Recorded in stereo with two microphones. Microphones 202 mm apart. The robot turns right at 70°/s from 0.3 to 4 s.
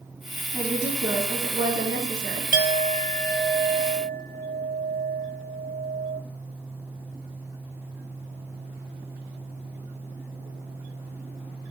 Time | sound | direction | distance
0.5 | a woman speaking | 160° left | 2.5 m
2.5 | a clink | 125° left | 0.6 m